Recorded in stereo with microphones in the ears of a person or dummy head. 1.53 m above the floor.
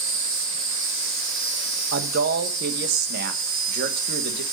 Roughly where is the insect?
Right.